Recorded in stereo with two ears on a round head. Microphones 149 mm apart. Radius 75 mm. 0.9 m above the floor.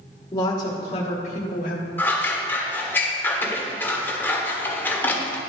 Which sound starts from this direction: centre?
Scissors, at 2.0 s.